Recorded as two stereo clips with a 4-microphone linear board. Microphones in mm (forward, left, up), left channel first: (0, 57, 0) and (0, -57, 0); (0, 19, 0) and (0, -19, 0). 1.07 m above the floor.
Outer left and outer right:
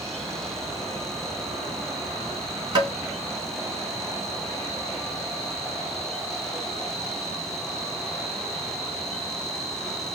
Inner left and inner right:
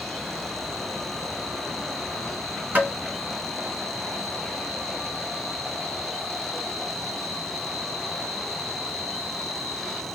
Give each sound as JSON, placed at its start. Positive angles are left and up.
{"t": 2.8, "sound": "tapping", "side_deg": -45, "distance_m": 3.0}